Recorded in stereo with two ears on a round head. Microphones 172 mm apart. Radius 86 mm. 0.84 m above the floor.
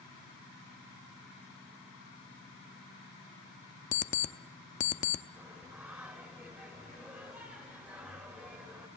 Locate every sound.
3.9 s an alarm clock: 40° left (ahead or behind), 0.8 m
5.4 s singing: 5° right (ahead or behind), 2.5 m